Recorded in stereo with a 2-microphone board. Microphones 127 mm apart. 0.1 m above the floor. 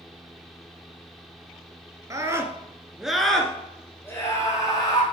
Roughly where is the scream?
Right.